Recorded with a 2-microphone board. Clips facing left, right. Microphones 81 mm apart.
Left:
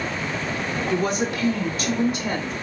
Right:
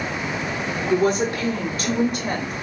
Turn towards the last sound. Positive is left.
turn(degrees=-60)  # may be behind; listen again after turning